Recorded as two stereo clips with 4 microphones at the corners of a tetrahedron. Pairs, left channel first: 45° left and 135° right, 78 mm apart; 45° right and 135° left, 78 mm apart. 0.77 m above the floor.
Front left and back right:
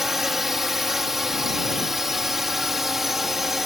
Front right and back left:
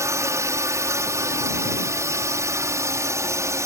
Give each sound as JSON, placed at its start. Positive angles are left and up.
{"t": 0.0, "sound": "a drone", "azimuth_deg": 140}